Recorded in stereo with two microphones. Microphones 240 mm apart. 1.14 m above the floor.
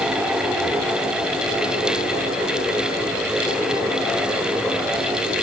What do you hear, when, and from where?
Only background noise.